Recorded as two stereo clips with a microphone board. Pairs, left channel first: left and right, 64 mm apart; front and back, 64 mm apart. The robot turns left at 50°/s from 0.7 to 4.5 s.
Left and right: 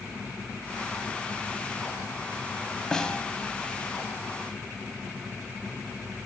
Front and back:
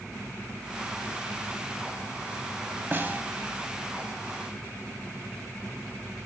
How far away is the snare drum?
About 0.9 m.